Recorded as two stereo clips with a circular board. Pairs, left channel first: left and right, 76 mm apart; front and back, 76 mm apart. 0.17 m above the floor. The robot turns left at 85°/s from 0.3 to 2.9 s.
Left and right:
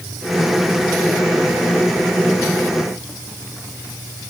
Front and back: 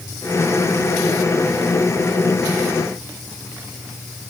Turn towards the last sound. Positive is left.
No sound to turn to.